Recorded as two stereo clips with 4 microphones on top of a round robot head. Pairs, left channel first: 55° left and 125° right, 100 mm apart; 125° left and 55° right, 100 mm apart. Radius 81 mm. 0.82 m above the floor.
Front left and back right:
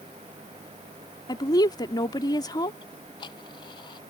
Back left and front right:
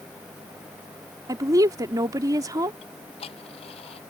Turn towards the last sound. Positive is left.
turn(degrees=100)